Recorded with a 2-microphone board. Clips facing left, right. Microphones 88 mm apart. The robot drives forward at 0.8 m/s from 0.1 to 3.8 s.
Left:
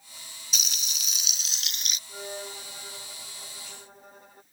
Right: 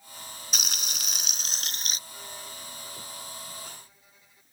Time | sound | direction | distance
0.5 | frying | 55° right (ahead or behind) | ?
2.1 | a violin | 45° left (ahead or behind) | ?